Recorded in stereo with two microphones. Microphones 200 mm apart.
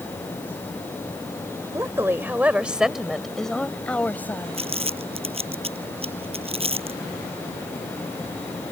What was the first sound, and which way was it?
A woman speaking, 15° right (ahead or behind).